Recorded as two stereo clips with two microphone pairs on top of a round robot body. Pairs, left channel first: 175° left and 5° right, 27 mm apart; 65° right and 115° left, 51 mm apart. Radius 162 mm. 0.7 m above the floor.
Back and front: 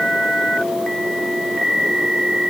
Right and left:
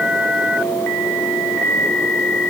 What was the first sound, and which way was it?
Only background noise.